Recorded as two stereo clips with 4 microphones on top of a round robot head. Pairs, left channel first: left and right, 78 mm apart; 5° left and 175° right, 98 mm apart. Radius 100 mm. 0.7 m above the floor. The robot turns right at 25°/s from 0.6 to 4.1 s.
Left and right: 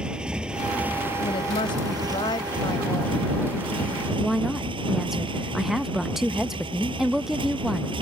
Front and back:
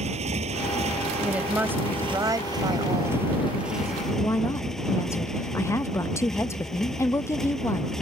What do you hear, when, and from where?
0.0 s a motorcycle: 170° right; by 8.0 s 85° right
1.2 s a woman speaking: 100° left; by 4.0 s 175° left
4.1 s a woman speaking: 10° right